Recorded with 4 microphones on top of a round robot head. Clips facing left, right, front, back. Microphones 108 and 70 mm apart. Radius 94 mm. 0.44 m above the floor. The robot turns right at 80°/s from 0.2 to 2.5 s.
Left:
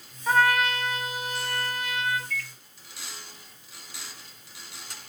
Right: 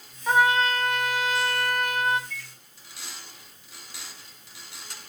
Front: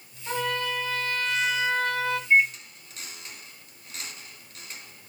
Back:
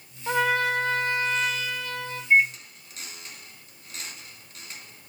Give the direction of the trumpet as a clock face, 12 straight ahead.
6 o'clock.